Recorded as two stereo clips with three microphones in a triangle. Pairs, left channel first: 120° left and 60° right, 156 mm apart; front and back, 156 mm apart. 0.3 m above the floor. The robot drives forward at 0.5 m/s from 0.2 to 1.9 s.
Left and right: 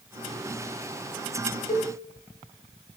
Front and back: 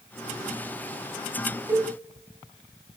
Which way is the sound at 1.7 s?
110° left.